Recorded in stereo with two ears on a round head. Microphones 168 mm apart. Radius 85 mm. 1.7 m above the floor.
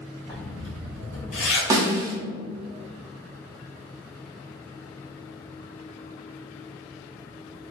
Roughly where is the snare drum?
Centre.